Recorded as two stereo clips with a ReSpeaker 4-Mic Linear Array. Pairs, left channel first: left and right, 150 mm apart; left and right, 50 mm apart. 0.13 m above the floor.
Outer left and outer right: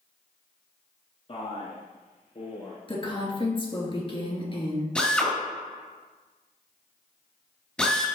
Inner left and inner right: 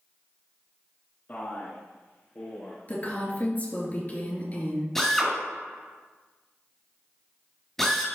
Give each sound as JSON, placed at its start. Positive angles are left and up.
{"t": 1.3, "sound": "a man speaking", "side_deg": 40, "distance_m": 1.3}
{"t": 2.9, "sound": "a woman speaking", "side_deg": 35, "distance_m": 2.5}
{"t": 5.0, "sound": "a drill", "side_deg": 5, "distance_m": 2.5}